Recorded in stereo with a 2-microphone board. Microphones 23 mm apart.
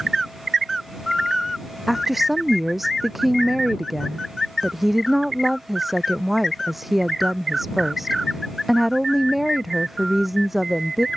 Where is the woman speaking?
5° right (ahead or behind).